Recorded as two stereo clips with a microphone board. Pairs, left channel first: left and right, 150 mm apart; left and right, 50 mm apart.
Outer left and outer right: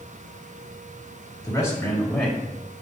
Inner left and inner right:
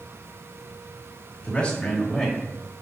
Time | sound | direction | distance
1.4 | a man speaking | 25° left (ahead or behind) | 1.4 m